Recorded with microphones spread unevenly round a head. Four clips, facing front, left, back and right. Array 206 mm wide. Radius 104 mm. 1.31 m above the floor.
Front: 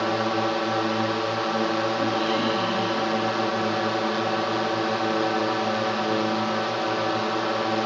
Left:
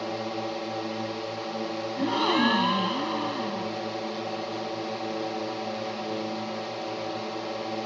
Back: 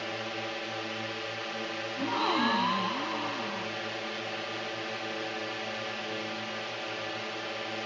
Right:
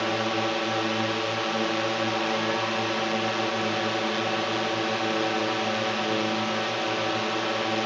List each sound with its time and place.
0.0 s a drone: 20° right
2.0 s a gasp: 80° left